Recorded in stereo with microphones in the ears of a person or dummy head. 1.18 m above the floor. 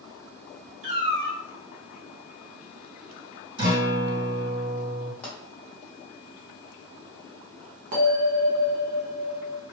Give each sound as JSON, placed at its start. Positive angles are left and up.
{"t": 0.8, "sound": "a cat meowing", "side_deg": -40, "distance_m": 1.2}
{"t": 3.6, "sound": "a guitar", "side_deg": -55, "distance_m": 1.9}
{"t": 5.2, "sound": "a pop", "side_deg": 10, "distance_m": 0.9}
{"t": 7.9, "sound": "a bell", "side_deg": -45, "distance_m": 0.9}